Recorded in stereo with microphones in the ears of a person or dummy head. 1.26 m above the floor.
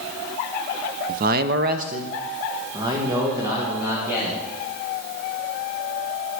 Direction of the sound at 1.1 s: 45° right (ahead or behind).